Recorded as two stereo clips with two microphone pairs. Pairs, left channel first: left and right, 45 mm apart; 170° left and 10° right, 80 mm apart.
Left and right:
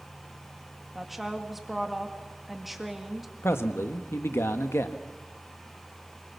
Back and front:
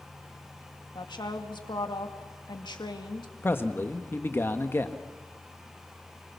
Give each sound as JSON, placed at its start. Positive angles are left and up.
{"t": 0.9, "sound": "a woman speaking", "azimuth_deg": -175, "distance_m": 2.0}
{"t": 3.4, "sound": "a man speaking", "azimuth_deg": 110, "distance_m": 1.3}